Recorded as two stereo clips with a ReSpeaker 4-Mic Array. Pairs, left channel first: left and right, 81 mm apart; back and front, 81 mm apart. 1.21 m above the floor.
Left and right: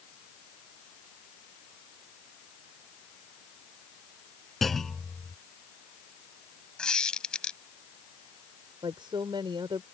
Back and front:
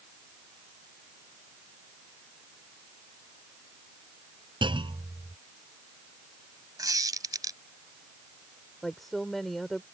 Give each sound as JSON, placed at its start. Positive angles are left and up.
{"t": 4.6, "sound": "a clunk", "azimuth_deg": 0}
{"t": 6.8, "sound": "a squeak", "azimuth_deg": 10}
{"t": 8.8, "sound": "a woman speaking", "azimuth_deg": -95}